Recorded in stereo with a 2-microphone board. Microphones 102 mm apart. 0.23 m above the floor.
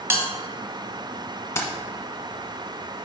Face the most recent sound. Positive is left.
turn(degrees=25)  # may be behind; listen again after turning